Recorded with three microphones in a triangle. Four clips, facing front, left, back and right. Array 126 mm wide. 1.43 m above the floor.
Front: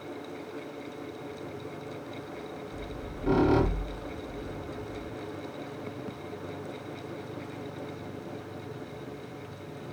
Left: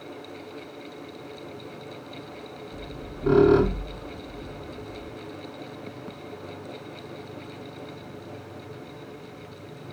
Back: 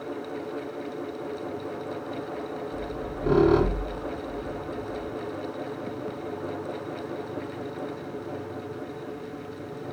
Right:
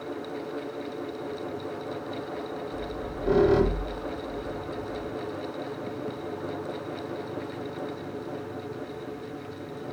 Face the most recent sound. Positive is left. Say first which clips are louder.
# right 5 dB, back 7 dB
turn(degrees=125)